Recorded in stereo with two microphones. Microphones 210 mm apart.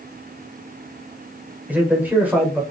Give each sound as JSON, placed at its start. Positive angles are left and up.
{"t": 1.7, "sound": "a man speaking", "side_deg": -10, "distance_m": 1.6}